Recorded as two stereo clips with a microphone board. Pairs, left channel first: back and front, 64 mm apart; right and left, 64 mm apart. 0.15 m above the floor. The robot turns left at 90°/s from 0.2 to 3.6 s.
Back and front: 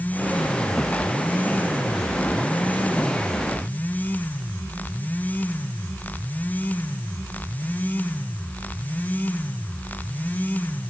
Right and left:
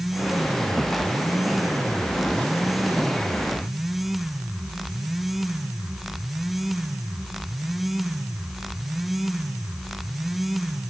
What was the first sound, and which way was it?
Only background noise.